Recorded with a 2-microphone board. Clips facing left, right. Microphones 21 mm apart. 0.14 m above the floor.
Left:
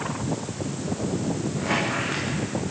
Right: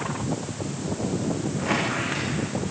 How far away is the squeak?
About 7 m.